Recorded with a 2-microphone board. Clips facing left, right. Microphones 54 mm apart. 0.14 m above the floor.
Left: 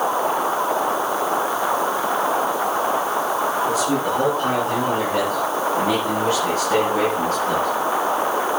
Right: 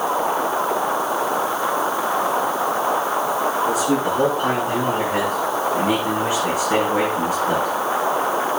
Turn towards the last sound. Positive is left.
turn(degrees=-15)  # may be behind; listen again after turning